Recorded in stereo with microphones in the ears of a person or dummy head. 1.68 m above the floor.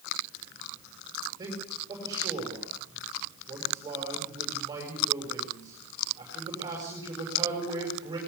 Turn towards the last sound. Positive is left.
turn(degrees=-20)  # may be behind; listen again after turning